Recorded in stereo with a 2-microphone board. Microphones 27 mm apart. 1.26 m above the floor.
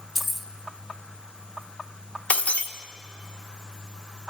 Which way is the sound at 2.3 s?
70° left (ahead or behind).